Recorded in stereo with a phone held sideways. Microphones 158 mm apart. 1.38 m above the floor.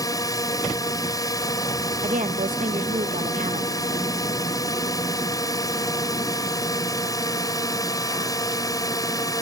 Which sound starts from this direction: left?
A drone, at 0.0 s.